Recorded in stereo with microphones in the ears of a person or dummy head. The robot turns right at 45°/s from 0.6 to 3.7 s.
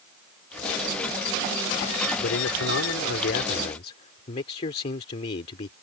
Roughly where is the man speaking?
Left.